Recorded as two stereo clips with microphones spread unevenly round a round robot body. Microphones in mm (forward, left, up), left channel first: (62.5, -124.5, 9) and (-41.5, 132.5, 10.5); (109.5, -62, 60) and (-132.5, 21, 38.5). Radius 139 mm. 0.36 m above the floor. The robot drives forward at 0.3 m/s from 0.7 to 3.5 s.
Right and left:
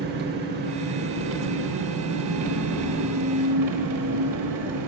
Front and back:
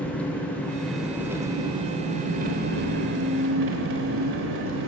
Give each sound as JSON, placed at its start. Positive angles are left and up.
{"t": 0.0, "sound": "an engine running", "azimuth_deg": 70, "distance_m": 0.8}